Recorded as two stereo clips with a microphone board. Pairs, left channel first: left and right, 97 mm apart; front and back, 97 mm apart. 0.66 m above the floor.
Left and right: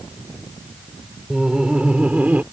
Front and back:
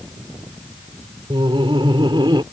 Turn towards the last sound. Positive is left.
turn(degrees=-160)